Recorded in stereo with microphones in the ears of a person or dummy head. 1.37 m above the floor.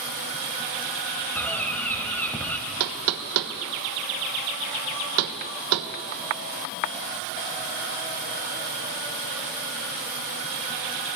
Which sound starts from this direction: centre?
A bird, at 1.4 s.